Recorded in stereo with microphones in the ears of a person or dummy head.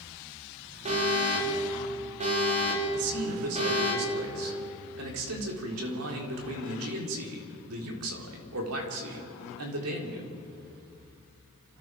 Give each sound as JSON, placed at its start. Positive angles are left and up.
{"t": 0.8, "sound": "an alarm", "side_deg": -35, "distance_m": 4.0}
{"t": 2.9, "sound": "a man speaking", "side_deg": -90, "distance_m": 4.0}